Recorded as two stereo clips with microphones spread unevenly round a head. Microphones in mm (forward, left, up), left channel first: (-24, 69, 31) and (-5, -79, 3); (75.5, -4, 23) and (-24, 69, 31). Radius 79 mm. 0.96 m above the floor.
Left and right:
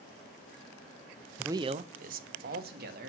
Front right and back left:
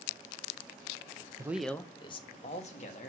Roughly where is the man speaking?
Behind right.